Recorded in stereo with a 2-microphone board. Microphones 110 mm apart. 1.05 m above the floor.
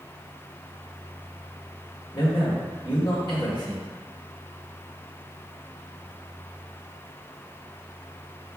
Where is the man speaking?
45° left (ahead or behind), 1.1 m.